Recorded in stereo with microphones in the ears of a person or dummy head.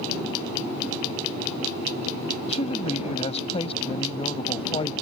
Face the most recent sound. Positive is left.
turn(degrees=40)  # may be behind; listen again after turning